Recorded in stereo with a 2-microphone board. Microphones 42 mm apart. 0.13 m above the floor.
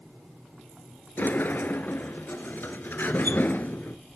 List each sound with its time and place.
1.2 s a sliding door: 55° left (ahead or behind), 0.7 m